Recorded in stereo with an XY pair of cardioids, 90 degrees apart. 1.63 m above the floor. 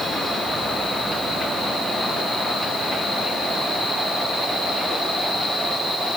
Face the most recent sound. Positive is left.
No sound to turn to.